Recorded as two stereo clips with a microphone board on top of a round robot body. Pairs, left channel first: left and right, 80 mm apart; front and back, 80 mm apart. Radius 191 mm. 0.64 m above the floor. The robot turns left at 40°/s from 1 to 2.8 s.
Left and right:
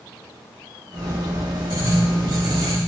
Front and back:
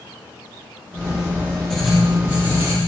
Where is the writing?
85° right, 5.5 m; by 2.8 s 125° right, 5.5 m.